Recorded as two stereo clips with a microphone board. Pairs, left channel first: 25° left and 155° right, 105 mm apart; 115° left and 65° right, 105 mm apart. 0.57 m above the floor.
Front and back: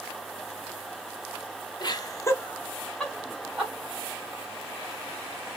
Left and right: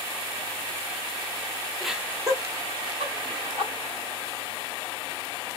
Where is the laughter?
25° left, 0.7 m; by 3.7 s 75° right, 1.6 m.